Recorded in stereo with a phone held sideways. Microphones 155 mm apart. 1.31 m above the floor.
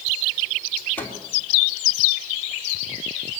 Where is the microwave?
15° left (ahead or behind), 3.5 m.